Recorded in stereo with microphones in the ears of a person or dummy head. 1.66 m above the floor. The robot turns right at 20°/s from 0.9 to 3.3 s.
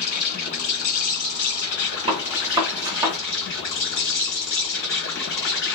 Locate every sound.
0.0 s an insect: 50° left, 2.0 m; by 5.8 s 100° left, 2.0 m
2.1 s a gunshot: 35° right (ahead or behind), 0.9 m; by 3.2 s 15° right (ahead or behind), 0.9 m